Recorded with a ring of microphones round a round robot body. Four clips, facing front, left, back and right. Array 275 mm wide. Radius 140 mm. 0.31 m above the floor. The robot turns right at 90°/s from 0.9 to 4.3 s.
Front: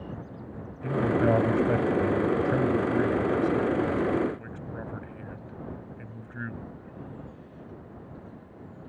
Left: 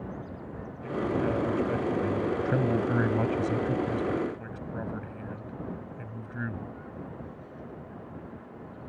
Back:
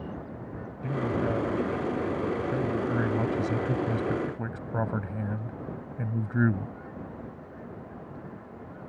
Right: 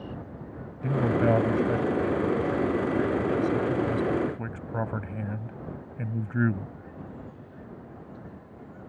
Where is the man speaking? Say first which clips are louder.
Right 5 dB, front 5 dB; 85° right; by 6.7 s 140° right.